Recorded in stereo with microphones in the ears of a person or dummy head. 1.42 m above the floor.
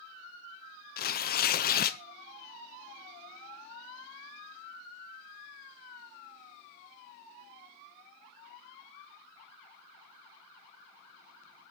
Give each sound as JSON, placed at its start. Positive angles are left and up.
{"t": 1.0, "sound": "tearing paper", "side_deg": 45, "distance_m": 0.6}